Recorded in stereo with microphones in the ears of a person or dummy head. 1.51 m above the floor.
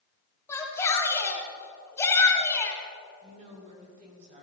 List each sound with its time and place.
0.5 s a shout: 15° left (ahead or behind), 2 m
3.2 s a woman speaking: 40° right (ahead or behind), 4 m